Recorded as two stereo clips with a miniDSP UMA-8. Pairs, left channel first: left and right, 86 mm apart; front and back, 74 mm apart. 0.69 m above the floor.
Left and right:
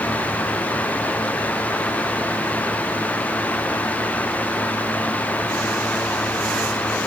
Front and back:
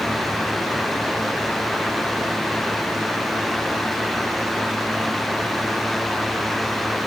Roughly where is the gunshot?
I don't hear a gunshot.